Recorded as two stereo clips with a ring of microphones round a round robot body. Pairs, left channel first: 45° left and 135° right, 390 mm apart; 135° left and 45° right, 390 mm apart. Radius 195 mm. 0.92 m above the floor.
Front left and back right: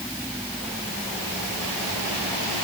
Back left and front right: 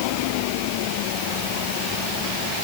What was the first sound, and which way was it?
Only background noise.